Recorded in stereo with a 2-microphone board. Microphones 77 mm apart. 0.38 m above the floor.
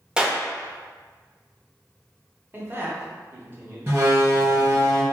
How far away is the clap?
About 0.6 m.